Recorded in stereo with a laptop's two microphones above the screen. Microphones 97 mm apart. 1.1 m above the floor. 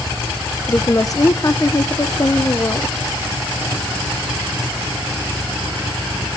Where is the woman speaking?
35° left (ahead or behind), 0.7 m.